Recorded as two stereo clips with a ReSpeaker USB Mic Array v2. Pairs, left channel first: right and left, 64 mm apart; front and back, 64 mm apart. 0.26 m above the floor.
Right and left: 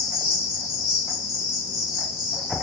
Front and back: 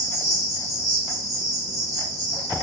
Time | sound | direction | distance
0.0 | an insect | 5° left | 1.7 m